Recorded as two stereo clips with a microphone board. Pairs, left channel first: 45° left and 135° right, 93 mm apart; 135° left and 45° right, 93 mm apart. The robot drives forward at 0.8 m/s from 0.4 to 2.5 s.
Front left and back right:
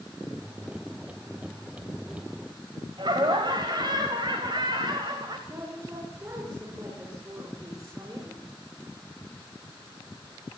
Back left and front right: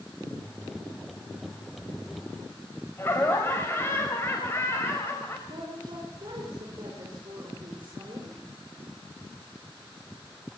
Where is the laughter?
160° right, 2.5 m.